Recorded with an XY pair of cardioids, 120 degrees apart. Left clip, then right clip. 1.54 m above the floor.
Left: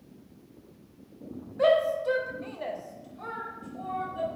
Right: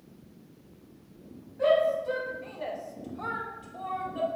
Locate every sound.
1.6 s a shout: 55° left, 0.8 m; by 4.3 s 60° right, 1.0 m